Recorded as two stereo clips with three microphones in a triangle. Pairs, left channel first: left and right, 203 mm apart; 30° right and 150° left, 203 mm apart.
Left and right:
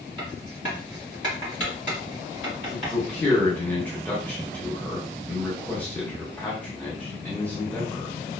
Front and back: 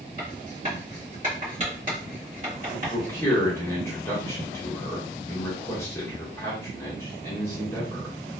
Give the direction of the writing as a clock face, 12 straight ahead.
9 o'clock.